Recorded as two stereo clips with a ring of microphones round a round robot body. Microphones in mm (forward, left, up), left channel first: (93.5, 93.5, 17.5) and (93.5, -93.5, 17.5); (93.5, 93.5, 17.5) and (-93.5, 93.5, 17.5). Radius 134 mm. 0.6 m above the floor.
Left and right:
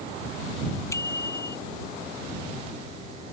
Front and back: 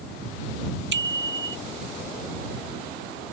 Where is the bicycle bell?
170° left.